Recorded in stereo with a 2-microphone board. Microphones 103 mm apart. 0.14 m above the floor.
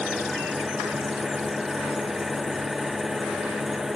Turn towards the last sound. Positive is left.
turn(degrees=-5)  # may be behind; listen again after turning